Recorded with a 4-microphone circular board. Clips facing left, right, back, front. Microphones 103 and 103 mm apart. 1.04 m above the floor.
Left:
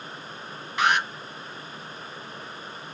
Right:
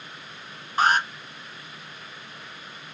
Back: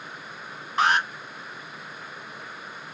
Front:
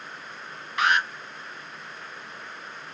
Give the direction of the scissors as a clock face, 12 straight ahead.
I don't hear scissors.